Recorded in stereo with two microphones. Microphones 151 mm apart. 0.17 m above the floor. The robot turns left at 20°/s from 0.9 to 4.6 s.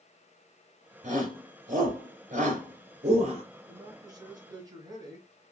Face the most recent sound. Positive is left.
turn(degrees=-25)  # may be behind; listen again after turning